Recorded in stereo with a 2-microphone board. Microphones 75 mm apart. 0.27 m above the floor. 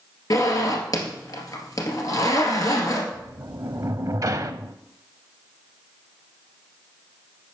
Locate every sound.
0.3 s a zipper: 50° left (ahead or behind), 2 m
3.1 s a sliding door: 50° right (ahead or behind), 0.5 m